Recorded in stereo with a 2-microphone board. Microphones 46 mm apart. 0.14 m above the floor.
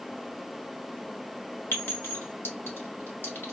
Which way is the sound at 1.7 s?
55° left (ahead or behind).